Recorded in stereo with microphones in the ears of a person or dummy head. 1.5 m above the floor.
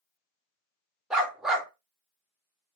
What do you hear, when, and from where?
1.1 s a dog barking: 5° right (ahead or behind), 2 m